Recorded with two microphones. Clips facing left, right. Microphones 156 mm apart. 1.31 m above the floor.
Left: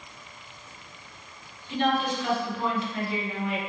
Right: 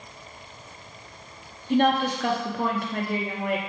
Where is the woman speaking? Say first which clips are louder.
Right 4 dB; 55° right (ahead or behind), 0.7 m.